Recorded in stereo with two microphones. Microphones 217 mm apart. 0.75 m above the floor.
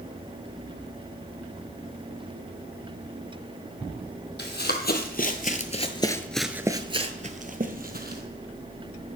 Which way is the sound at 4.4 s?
50° left (ahead or behind).